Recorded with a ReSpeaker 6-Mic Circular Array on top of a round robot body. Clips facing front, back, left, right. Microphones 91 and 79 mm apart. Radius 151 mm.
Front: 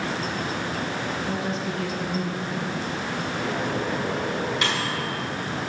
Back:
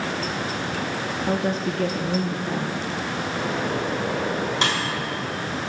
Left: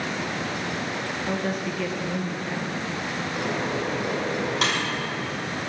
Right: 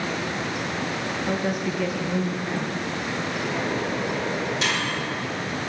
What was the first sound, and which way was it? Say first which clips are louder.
A woman speaking: back 4 dB, right 2 dB; 170° right.